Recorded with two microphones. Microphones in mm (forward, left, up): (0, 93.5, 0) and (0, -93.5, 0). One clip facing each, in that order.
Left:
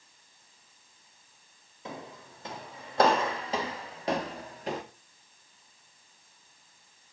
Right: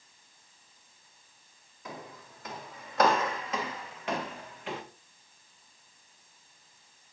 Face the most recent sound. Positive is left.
turn(degrees=40)  # may be behind; listen again after turning